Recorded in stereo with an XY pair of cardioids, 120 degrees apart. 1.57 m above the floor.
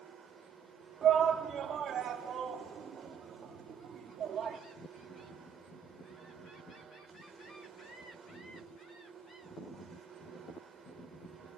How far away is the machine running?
About 6 m.